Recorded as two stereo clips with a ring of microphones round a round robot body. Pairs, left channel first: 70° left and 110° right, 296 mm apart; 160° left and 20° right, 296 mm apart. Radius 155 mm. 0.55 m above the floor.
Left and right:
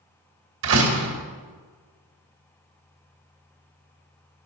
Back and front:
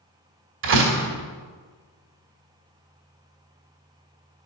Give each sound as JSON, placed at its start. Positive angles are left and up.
{"t": 0.6, "sound": "a door slam", "azimuth_deg": -70, "distance_m": 2.5}